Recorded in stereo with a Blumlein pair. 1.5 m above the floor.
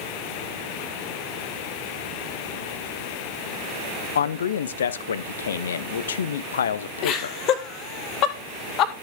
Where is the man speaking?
65° left, 0.7 m.